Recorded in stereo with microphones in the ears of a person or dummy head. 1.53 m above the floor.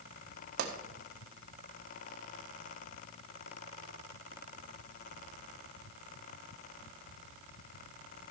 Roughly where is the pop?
Right.